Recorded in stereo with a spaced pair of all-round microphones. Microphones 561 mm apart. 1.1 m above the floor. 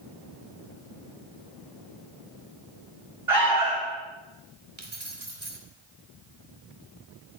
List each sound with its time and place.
3.3 s an alarm: 65° right (ahead or behind), 8.5 m
4.8 s keys jangling: 50° right (ahead or behind), 3 m